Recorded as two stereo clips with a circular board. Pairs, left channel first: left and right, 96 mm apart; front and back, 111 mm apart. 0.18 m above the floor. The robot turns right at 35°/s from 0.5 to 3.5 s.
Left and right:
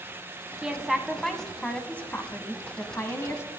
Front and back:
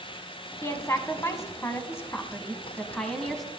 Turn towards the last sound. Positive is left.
turn(degrees=90)